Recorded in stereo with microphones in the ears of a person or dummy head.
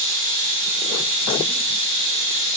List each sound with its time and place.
0.0 s running water: 60° left (ahead or behind), 0.9 m